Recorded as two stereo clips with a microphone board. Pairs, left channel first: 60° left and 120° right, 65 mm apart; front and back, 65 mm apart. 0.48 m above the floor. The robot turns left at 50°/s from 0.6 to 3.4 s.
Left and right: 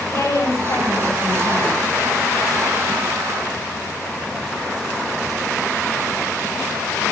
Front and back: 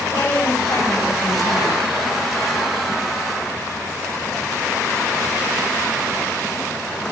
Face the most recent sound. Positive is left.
turn(degrees=-105)